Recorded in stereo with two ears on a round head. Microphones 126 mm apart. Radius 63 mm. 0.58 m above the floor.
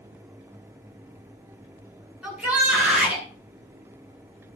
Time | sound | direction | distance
2.2 | a shout | 10° right (ahead or behind) | 8 m